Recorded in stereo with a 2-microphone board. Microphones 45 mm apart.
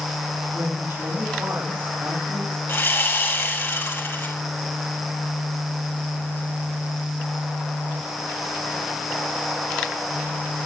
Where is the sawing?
50° left (ahead or behind), 5.5 m.